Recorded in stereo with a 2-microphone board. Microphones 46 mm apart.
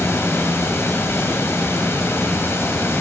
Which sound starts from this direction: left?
Running water, at 0.0 s.